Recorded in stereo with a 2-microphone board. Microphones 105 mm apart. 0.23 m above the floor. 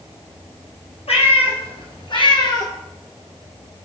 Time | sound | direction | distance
1.1 | a cat meowing | 75° left (ahead or behind) | 1.7 m